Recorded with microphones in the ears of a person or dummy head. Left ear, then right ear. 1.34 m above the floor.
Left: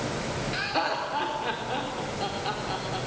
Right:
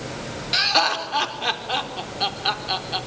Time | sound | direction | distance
0.5 | laughter | 45° right (ahead or behind) | 4 m